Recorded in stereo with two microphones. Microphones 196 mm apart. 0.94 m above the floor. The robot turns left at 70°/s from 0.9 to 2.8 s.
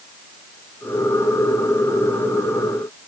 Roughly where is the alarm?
No alarm in this recording.